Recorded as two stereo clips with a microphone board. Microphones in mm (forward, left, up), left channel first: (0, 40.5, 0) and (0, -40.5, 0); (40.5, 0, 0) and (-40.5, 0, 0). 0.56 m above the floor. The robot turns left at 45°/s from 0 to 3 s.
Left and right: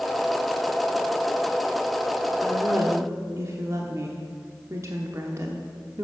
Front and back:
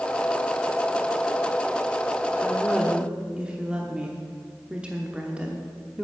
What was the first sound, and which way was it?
A woman speaking, 85° right.